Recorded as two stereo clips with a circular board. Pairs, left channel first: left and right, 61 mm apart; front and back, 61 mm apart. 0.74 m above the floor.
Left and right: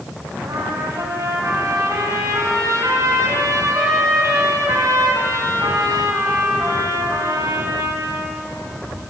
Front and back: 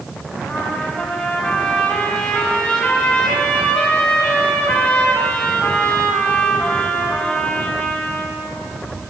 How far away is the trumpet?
About 4.5 m.